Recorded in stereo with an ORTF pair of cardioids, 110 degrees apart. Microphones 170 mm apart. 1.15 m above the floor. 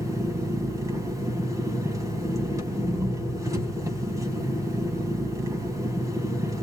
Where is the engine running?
20° right, 4 m.